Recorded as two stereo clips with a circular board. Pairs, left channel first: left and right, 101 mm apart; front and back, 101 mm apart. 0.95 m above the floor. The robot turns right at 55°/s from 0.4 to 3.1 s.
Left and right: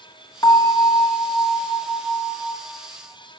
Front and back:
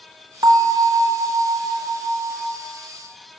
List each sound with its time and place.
0.4 s a bell: 140° left, 1.6 m; by 2.6 s 105° right, 1.6 m